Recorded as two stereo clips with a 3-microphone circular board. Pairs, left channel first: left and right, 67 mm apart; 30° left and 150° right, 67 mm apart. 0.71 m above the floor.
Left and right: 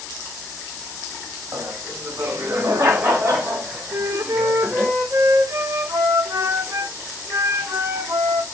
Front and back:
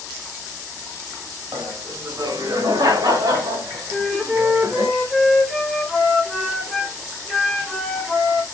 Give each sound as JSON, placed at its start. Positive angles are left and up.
{"t": 1.5, "sound": "laughter", "azimuth_deg": -130, "distance_m": 4.0}
{"t": 3.9, "sound": "a flute", "azimuth_deg": -75, "distance_m": 2.5}